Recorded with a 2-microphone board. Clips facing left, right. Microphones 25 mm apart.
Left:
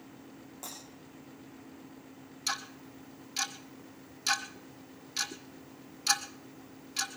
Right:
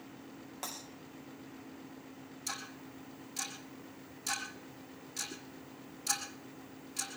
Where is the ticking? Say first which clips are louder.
Left 7 dB; 50° left (ahead or behind), 1.5 m.